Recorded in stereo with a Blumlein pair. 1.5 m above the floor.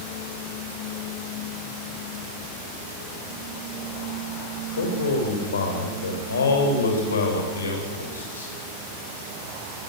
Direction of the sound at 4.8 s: 70° left.